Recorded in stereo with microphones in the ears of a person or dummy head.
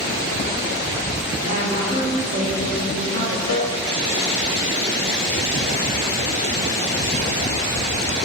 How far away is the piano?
About 2 m.